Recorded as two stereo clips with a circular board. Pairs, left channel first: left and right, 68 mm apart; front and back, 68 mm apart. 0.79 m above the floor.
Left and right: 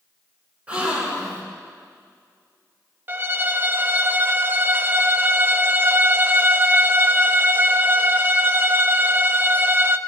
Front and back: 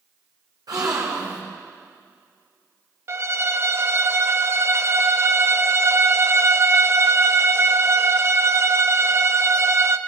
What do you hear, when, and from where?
0.7 s a gasp: 160° right, 3.5 m
3.1 s a violin: 145° right, 0.5 m